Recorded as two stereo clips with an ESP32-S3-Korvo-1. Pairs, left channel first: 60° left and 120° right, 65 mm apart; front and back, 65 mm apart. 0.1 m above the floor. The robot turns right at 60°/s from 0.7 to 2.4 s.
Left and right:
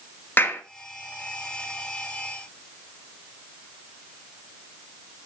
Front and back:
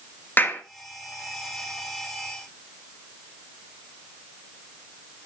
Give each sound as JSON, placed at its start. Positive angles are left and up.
{"t": 0.4, "sound": "a clap", "azimuth_deg": 30, "distance_m": 1.1}